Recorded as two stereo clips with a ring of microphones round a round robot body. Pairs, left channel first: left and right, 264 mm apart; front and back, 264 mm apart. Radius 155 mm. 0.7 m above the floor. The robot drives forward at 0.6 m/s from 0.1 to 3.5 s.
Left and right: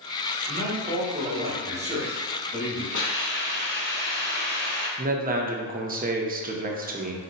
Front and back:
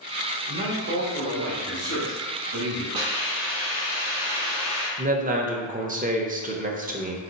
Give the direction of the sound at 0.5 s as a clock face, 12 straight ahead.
5 o'clock.